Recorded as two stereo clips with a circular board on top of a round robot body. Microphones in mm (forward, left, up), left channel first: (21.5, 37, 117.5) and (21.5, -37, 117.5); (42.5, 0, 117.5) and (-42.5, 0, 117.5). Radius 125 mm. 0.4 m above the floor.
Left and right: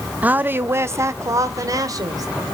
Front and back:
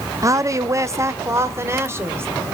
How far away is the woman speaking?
About 0.9 m.